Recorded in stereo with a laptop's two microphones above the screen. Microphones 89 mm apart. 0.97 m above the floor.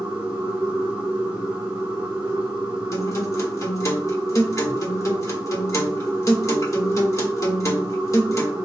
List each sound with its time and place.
0.0 s a machine running: 15° right (ahead or behind), 2 m
2.9 s a guitar: 40° left (ahead or behind), 1.1 m